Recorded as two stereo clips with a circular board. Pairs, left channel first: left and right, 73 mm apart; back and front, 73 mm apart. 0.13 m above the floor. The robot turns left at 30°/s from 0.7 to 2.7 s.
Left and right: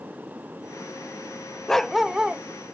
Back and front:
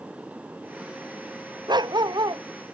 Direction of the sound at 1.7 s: 10° left.